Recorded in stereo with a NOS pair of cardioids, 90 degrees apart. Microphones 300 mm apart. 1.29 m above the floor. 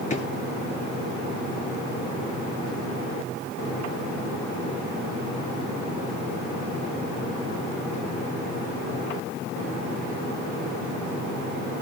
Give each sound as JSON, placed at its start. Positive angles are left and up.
{"t": 0.1, "sound": "a drawer", "azimuth_deg": 25, "distance_m": 8.5}